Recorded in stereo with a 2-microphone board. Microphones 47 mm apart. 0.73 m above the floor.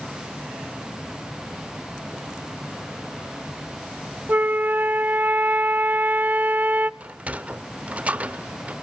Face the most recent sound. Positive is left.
turn(degrees=-30)  # may be behind; listen again after turning